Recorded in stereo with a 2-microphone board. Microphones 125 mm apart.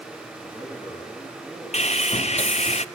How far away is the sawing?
About 0.6 m.